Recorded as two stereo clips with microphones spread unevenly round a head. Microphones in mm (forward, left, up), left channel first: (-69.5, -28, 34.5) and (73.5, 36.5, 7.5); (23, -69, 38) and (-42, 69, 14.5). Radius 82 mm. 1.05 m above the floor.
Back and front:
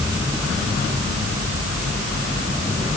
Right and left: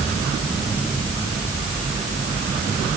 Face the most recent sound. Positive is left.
No sound to turn to.